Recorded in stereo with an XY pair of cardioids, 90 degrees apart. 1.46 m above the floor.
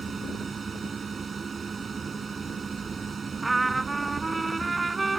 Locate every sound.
0.0 s a machine running: 40° right
3.4 s a trumpet: 25° right